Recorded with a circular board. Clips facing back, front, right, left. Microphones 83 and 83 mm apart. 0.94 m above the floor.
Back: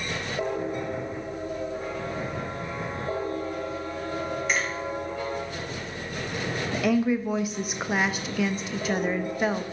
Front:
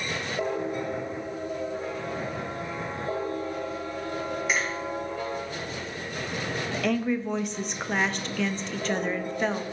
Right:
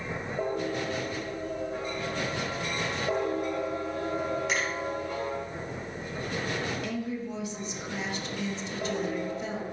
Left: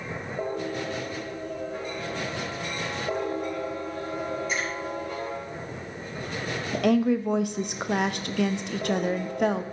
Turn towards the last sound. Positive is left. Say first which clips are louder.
# back 3 dB, left 11 dB
turn(degrees=95)